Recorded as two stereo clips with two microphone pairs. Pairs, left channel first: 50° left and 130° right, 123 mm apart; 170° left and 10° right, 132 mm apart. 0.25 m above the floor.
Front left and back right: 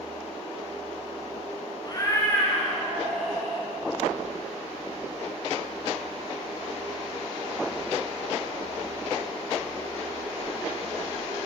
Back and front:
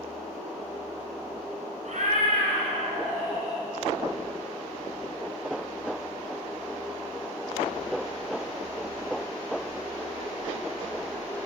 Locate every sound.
1.9 s a cat meowing: straight ahead, 1.3 m; by 3.6 s 40° right, 3.5 m